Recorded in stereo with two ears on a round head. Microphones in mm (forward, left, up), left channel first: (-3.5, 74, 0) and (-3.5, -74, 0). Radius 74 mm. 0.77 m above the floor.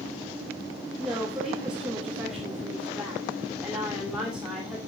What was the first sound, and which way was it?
A woman speaking, 5° right (ahead or behind).